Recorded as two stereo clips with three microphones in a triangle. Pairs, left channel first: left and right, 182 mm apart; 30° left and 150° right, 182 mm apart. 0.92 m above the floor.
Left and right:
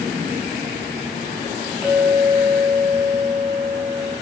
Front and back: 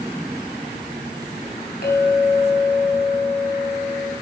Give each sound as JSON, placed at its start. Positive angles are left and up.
{"t": 1.8, "sound": "a clink", "azimuth_deg": -10, "distance_m": 3.0}